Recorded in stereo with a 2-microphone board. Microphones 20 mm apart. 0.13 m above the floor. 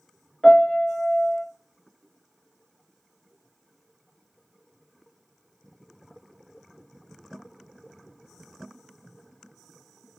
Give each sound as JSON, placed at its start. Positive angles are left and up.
{"t": 0.4, "sound": "a piano", "side_deg": 25, "distance_m": 0.9}